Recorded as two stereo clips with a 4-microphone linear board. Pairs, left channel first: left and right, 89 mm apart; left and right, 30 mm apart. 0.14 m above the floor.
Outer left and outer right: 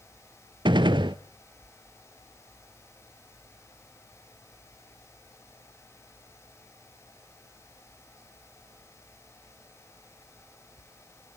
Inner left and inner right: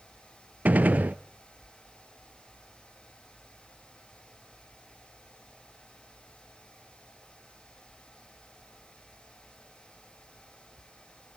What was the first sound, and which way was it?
A gunshot, 65° right (ahead or behind).